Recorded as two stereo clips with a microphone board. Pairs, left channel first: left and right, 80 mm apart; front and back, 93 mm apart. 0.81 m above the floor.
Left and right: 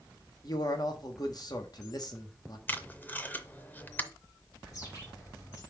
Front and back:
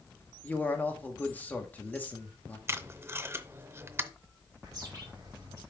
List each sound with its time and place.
0.4 s a man speaking: 70° left, 1.3 m
2.7 s tape being pulled: 140° left, 0.6 m
4.6 s a bird: 130° left, 3.5 m